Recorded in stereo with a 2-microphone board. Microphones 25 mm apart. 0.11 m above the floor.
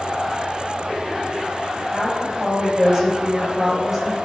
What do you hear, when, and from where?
1.9 s a woman speaking: 25° right (ahead or behind), 3 m